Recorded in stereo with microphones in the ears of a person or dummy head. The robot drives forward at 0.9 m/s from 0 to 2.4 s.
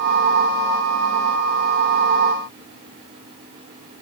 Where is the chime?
I don't hear a chime.